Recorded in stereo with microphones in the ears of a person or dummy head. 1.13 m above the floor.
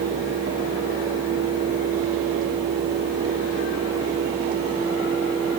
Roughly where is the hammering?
I don't hear hammering.